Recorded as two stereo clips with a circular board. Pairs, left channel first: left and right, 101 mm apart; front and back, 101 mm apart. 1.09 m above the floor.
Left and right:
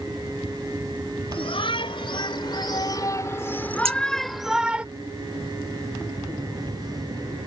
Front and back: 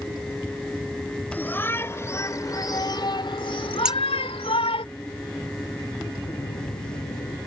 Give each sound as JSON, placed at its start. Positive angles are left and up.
{"t": 1.3, "sound": "a shout", "azimuth_deg": 70}
{"t": 3.9, "sound": "scissors", "azimuth_deg": -100}
{"t": 6.2, "sound": "a phone buzzing", "azimuth_deg": -10}